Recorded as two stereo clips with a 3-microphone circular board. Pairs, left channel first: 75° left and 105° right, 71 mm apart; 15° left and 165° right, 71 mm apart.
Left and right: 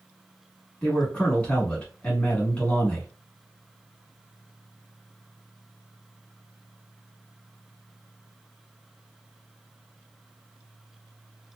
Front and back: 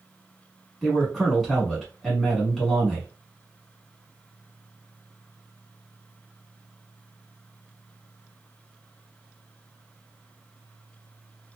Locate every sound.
0.8 s a man speaking: 105° left, 1.2 m